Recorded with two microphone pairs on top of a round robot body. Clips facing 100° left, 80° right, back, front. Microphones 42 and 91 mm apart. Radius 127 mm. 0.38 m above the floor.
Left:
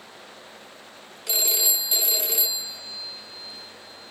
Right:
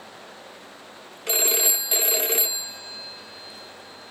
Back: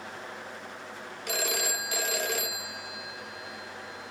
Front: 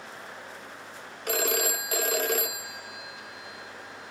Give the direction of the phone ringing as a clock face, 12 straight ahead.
1 o'clock.